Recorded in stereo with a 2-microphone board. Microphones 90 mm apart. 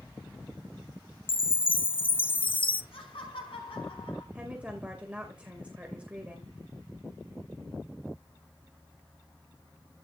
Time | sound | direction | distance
1.3 | a chime | 70° left (ahead or behind) | 0.6 m
2.9 | laughter | 80° left | 5 m
4.3 | a woman speaking | 15° right (ahead or behind) | 2.5 m